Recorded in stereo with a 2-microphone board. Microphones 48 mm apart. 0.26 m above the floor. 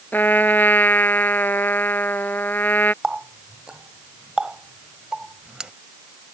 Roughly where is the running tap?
Centre.